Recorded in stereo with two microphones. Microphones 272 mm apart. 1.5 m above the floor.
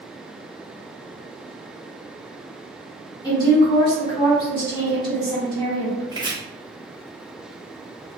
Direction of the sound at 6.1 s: 15° right (ahead or behind).